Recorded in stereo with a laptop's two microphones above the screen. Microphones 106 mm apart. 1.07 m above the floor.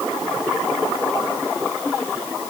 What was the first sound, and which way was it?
Only background noise.